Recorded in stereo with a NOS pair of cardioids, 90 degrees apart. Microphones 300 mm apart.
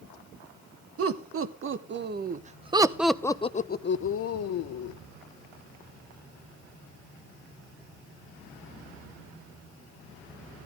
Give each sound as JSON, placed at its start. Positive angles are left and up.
{"t": 1.0, "sound": "laughter", "azimuth_deg": -50, "distance_m": 1.7}